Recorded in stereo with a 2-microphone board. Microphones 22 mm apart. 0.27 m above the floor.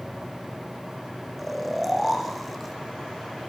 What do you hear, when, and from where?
1.4 s snoring: centre (ahead or behind), 5 m